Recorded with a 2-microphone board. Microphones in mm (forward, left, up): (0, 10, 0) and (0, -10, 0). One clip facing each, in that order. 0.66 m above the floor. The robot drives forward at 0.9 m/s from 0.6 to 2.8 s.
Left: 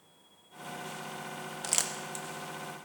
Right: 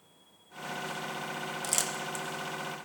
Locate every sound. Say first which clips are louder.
1.6 s crumpling: left 1 dB; 10° left (ahead or behind), 0.8 m; by 2.2 s 5° left (ahead or behind), 1.1 m